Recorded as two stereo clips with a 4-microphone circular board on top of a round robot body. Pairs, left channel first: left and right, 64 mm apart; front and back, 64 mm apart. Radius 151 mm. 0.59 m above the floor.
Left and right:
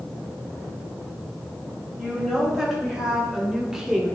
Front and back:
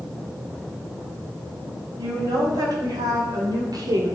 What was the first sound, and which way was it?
A woman speaking, 175° right.